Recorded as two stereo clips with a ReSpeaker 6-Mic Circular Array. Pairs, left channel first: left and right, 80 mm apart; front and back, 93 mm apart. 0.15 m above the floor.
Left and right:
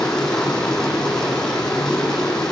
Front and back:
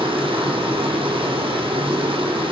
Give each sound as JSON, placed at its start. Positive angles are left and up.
{"t": 0.0, "sound": "running water", "azimuth_deg": 170, "distance_m": 4.5}